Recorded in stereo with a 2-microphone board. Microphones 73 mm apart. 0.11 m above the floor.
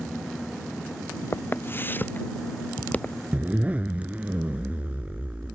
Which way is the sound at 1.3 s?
30° left (ahead or behind).